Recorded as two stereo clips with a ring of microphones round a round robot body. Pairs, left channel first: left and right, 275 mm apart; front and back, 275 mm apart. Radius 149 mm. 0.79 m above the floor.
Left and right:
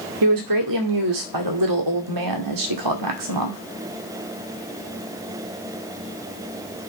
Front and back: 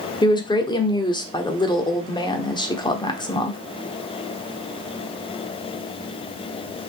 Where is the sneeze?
I don't hear a sneeze.